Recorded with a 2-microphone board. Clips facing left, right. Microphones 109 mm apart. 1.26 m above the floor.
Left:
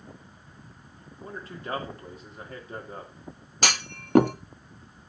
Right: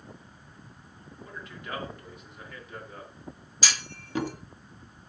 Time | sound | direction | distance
1.2 | a man speaking | 40° left (ahead or behind) | 2.5 m
3.6 | a clunk | 65° left (ahead or behind) | 0.6 m